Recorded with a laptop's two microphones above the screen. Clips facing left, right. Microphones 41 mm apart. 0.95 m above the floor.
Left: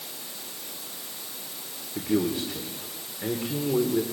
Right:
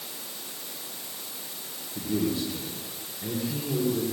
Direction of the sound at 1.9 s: 65° left (ahead or behind).